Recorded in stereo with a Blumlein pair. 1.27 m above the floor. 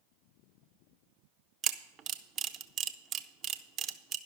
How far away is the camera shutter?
About 0.6 m.